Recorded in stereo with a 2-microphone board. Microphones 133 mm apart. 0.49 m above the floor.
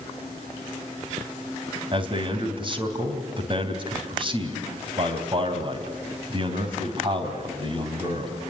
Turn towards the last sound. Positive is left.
turn(degrees=-40)  # may be behind; listen again after turning